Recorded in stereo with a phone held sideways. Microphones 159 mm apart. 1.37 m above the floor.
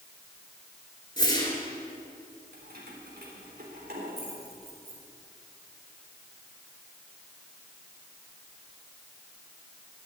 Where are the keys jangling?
80° right, 3.5 m.